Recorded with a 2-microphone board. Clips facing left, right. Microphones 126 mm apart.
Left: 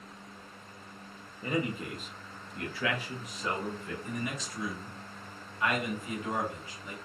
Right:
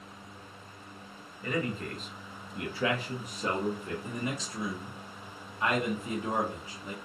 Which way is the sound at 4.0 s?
30° right (ahead or behind).